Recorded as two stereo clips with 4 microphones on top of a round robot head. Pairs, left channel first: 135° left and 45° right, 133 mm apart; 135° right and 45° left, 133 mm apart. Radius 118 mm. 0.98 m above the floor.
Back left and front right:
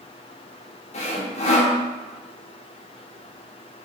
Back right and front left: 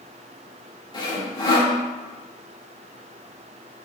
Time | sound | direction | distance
0.9 | sawing | 170° left | 1.0 m